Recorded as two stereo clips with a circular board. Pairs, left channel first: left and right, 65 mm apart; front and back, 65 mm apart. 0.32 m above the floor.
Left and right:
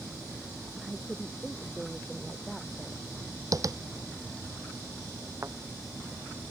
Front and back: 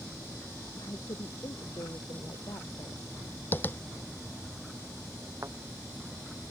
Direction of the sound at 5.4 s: 135° right.